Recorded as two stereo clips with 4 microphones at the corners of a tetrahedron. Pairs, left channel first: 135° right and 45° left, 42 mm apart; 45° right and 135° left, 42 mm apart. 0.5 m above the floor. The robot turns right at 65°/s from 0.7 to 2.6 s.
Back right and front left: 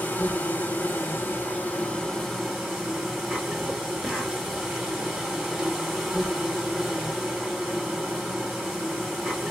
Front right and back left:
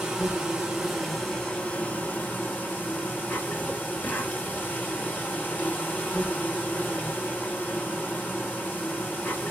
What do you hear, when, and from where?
0.0 s an insect: 155° right, 2.5 m; by 9.5 s 35° right, 2.5 m